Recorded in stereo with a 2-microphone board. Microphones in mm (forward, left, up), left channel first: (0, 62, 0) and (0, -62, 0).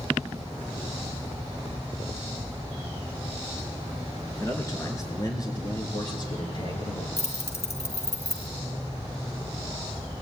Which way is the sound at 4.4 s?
25° left (ahead or behind).